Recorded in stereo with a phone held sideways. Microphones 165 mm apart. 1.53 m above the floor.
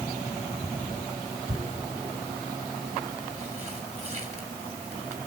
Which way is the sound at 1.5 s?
45° right (ahead or behind).